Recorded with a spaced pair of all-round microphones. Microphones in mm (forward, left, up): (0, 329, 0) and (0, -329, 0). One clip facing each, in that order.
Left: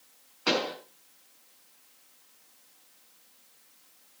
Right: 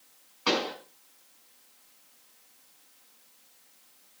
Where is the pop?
30° right (ahead or behind), 4.5 m.